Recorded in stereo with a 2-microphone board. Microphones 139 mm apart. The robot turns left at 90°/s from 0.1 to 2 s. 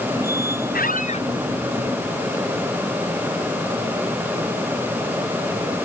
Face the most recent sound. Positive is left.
turn(degrees=-25)